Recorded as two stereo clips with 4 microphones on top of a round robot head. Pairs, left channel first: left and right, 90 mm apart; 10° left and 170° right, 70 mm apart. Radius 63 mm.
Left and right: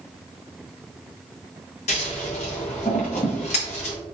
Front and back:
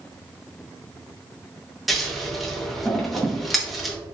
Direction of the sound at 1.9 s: 105° left.